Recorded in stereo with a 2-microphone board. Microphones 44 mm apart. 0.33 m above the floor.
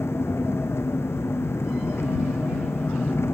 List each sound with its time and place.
0.0 s an engine running: 80° left